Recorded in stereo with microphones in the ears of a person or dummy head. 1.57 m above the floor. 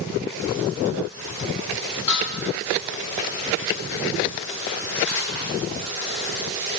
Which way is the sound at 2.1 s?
20° left (ahead or behind).